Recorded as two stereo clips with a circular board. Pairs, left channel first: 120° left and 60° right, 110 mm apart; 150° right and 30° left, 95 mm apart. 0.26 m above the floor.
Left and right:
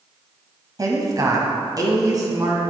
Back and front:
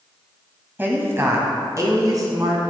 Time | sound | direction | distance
0.8 | a woman speaking | 25° right | 1.3 m